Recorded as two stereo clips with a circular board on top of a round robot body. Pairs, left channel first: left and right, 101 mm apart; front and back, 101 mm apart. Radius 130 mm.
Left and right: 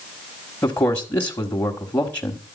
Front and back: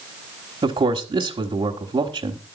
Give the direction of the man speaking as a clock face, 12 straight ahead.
7 o'clock.